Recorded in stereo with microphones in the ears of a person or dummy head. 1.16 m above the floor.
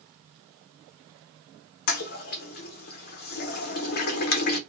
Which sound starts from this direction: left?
A toilet flushing, at 1.9 s.